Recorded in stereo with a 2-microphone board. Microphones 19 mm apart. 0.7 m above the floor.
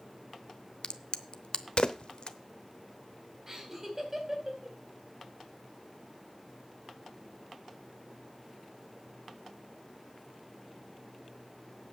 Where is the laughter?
20° right (ahead or behind), 3.5 m.